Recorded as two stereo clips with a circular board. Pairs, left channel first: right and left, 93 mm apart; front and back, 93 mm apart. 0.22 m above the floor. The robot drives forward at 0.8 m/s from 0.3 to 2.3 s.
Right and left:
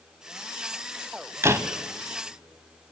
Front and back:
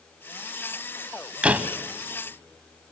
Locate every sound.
1.4 s a door slam: 115° left, 0.8 m; by 1.7 s 135° left, 0.9 m